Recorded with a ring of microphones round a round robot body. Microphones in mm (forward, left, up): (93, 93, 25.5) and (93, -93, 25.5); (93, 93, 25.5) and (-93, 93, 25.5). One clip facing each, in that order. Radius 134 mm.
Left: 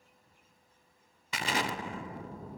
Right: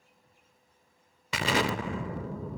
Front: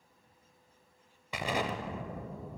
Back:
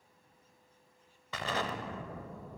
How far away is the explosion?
About 0.5 m.